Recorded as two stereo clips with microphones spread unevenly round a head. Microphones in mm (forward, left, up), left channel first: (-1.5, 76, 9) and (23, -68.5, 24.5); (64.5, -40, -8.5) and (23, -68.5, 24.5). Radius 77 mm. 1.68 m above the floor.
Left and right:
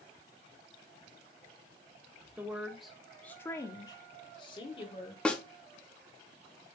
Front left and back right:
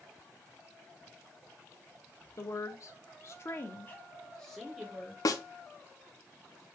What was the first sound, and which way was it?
A woman speaking, 10° right.